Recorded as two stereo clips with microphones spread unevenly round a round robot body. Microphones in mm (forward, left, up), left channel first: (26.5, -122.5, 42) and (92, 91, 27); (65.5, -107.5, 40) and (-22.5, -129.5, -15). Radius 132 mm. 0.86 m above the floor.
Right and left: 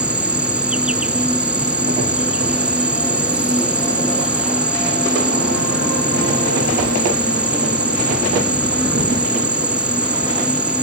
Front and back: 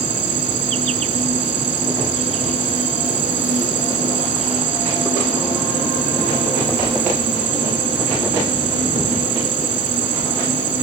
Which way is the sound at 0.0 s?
160° left.